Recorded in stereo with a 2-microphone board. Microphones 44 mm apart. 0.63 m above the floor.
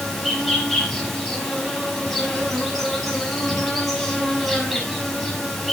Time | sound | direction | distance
0.0 | an insect | centre (ahead or behind) | 7 m